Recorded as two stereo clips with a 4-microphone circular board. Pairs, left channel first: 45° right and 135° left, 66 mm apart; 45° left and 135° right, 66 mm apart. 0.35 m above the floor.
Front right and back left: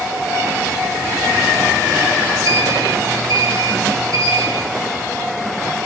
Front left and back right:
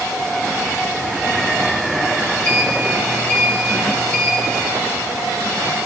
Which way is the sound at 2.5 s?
115° left.